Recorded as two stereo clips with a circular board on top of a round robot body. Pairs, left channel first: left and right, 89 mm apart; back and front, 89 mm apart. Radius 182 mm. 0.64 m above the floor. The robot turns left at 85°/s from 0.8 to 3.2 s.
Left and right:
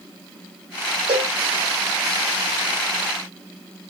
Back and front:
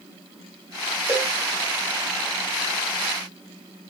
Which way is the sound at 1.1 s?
65° right.